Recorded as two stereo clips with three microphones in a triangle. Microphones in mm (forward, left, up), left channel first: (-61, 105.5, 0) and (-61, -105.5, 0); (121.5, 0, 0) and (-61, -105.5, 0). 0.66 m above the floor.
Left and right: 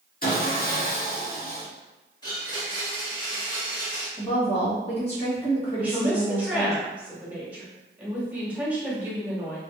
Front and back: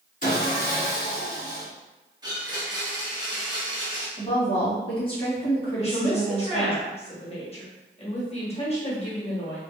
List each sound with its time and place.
0.2 s sawing: 65° left, 1.0 m
2.2 s a blender: 150° left, 1.3 m
4.2 s a woman speaking: 65° left, 1.3 m
5.8 s a woman speaking: 10° right, 1.0 m